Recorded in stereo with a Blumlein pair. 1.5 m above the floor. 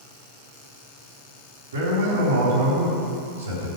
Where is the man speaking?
65° right, 4 m.